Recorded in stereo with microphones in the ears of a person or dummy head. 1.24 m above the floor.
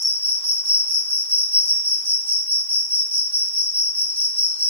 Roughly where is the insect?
Centre.